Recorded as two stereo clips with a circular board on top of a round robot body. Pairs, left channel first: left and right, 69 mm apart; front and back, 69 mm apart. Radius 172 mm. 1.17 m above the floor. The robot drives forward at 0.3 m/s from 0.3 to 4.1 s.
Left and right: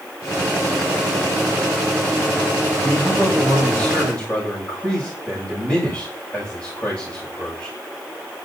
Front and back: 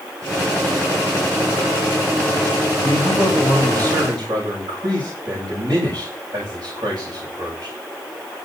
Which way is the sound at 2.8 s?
155° left.